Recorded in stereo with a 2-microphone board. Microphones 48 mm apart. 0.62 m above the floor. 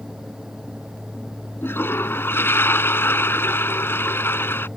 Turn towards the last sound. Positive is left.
turn(degrees=50)  # may be behind; listen again after turning